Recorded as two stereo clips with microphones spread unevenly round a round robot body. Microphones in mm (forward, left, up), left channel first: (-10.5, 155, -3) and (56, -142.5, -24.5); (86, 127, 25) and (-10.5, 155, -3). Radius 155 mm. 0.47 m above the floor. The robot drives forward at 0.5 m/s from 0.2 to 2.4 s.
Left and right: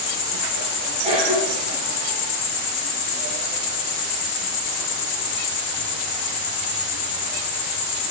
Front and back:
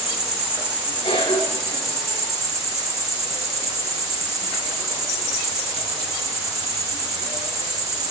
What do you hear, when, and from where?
0.0 s an insect: 85° left, 2 m; by 8.1 s 115° left, 2.5 m
1.0 s a cough: 10° right, 6.5 m